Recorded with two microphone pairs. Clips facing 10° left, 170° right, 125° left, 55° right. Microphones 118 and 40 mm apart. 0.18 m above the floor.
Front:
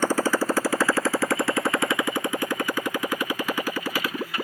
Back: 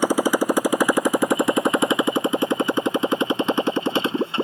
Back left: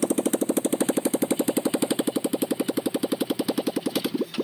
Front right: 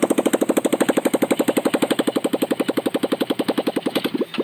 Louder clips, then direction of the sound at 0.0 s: Back 3 dB, front right 6 dB; 95° right.